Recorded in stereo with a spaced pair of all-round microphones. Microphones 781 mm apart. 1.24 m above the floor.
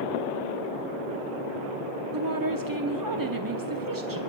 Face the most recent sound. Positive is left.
turn(degrees=-25)  # may be behind; listen again after turning